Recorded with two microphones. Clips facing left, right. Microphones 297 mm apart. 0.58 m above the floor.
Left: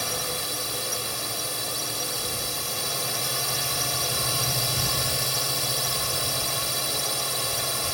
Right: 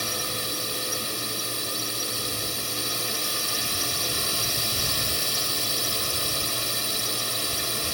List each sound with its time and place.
0.0 s a drone: 60° left (ahead or behind)